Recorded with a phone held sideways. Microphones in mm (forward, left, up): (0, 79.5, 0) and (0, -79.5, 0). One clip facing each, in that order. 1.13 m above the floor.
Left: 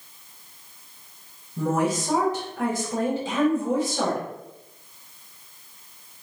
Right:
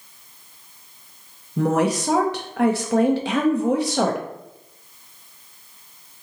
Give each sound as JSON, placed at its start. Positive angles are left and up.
{"t": 1.6, "sound": "a woman speaking", "side_deg": -75, "distance_m": 0.6}